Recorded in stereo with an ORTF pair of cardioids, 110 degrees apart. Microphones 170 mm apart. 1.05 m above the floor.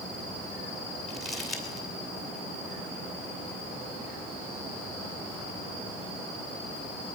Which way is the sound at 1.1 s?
Straight ahead.